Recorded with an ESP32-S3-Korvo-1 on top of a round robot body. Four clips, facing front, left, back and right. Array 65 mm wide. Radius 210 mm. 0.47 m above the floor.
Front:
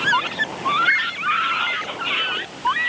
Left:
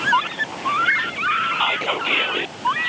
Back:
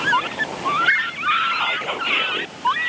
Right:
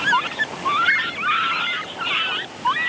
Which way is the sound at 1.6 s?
115° left.